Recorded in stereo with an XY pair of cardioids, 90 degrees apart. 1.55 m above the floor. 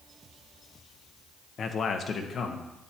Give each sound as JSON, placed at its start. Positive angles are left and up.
{"t": 1.6, "sound": "a man speaking", "azimuth_deg": 55, "distance_m": 1.2}